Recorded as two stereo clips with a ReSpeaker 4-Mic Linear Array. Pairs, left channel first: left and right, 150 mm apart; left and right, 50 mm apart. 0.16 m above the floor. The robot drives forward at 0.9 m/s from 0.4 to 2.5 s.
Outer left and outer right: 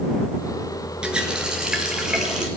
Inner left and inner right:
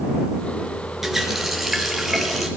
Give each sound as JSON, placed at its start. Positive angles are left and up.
{"t": 1.0, "sound": "a running tap", "side_deg": -5, "distance_m": 1.6}